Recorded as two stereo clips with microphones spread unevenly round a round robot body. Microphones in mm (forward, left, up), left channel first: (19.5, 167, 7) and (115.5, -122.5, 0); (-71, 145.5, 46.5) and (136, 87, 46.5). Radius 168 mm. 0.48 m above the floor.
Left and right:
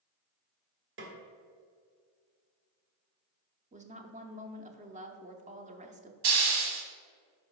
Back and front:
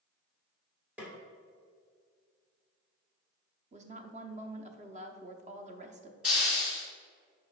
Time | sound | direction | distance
1.0 | a snare drum | 95° right | 1.4 m
3.7 | a woman speaking | 30° right | 0.8 m
6.2 | a hiss | 105° right | 1.1 m